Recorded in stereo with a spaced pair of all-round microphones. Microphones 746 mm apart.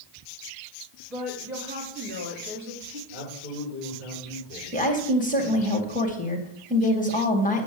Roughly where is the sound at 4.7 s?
Centre.